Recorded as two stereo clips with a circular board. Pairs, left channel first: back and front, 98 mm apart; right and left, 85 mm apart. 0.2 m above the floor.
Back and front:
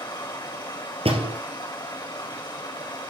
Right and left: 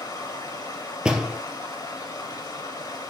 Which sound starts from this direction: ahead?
A door slam, at 1.1 s.